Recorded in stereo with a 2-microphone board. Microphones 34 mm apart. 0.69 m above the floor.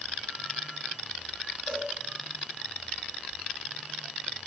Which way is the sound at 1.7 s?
25° right (ahead or behind).